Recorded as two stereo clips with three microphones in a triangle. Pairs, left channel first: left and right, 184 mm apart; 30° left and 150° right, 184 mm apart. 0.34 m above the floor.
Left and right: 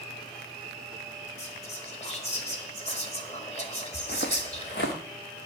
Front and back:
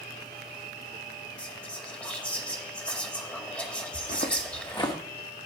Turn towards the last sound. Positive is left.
turn(degrees=100)